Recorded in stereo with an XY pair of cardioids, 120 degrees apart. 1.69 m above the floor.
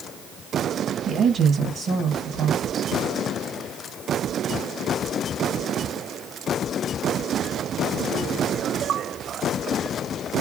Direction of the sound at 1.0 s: 50° right.